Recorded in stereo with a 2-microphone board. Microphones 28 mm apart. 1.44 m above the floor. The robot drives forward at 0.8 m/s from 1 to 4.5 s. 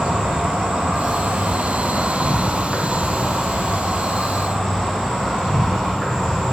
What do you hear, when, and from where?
0.0 s an insect: 55° right (ahead or behind), 1.0 m; by 6.5 s 15° right (ahead or behind), 3 m